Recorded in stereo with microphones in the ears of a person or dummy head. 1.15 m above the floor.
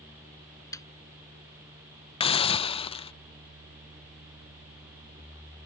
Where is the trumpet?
I don't hear a trumpet.